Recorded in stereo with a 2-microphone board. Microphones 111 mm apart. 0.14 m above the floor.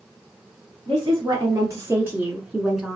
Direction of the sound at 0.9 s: 40° right (ahead or behind).